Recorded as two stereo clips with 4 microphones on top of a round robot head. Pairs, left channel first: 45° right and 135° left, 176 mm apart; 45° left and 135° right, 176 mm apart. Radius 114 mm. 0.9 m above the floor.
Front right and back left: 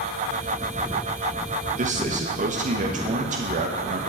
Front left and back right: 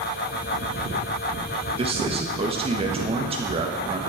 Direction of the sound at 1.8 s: 175° left.